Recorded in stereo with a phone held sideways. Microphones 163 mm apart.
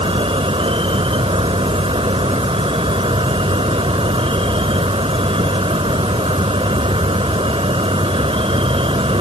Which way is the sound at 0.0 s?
35° right (ahead or behind).